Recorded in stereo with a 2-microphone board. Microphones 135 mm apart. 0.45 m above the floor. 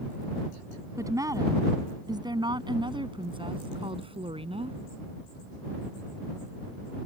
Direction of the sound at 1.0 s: 25° right (ahead or behind).